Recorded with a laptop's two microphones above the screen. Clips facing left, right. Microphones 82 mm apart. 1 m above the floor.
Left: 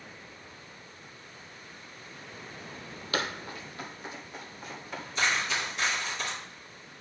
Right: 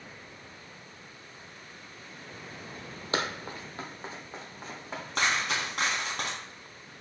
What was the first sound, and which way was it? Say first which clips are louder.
Running footsteps: right 1 dB; 30° right (ahead or behind).